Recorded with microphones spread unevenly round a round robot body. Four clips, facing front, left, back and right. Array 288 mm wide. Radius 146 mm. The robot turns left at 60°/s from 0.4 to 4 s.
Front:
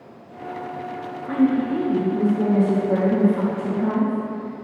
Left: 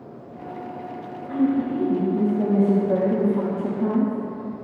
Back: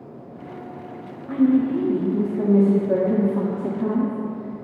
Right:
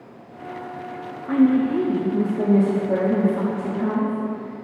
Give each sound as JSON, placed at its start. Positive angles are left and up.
{"t": 1.3, "sound": "a woman speaking", "azimuth_deg": -70, "distance_m": 1.2}